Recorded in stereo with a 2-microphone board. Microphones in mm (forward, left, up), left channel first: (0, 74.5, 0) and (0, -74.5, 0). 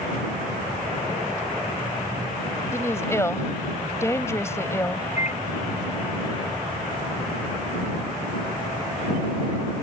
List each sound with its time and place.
2.7 s a woman speaking: 20° left (ahead or behind)
5.2 s a microwave: 50° left (ahead or behind)